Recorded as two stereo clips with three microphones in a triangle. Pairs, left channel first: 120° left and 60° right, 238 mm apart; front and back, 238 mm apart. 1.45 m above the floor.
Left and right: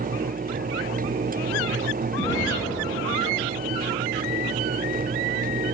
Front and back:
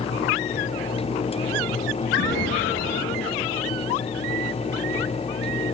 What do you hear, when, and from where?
2.2 s an explosion: 40° left, 8 m